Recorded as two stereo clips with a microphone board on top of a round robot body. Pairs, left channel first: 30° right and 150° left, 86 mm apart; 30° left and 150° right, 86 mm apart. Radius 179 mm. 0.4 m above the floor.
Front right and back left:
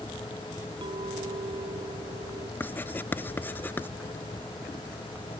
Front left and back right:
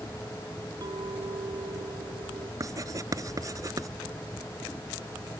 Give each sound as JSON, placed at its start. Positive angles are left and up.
{"t": 0.8, "sound": "a clink", "azimuth_deg": 170}
{"t": 2.6, "sound": "writing", "azimuth_deg": -100}